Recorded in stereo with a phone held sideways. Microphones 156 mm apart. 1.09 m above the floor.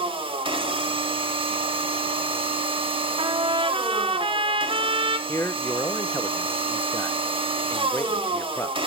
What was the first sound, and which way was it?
A machine running, 35° right (ahead or behind).